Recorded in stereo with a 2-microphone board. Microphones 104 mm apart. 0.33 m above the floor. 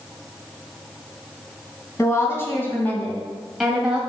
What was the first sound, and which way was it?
A woman speaking, 30° left (ahead or behind).